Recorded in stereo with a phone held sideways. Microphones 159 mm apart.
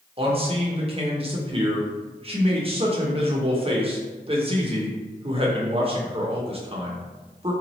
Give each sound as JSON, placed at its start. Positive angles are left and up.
{"t": 0.2, "sound": "a man speaking", "side_deg": -40, "distance_m": 0.7}